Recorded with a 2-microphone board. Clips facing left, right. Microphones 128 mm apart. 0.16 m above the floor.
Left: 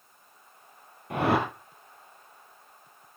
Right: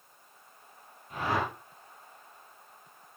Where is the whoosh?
65° left (ahead or behind), 3 m.